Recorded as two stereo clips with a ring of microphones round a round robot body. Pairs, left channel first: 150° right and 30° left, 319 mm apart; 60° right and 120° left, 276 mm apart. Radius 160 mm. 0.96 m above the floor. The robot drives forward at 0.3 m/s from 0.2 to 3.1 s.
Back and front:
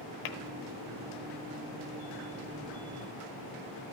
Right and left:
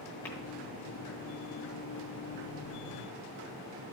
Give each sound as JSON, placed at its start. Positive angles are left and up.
{"t": 0.2, "sound": "tapping", "azimuth_deg": -145, "distance_m": 0.9}